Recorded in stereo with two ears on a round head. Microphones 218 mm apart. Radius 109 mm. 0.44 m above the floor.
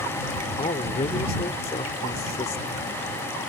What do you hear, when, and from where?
0.6 s a man speaking: 25° left (ahead or behind)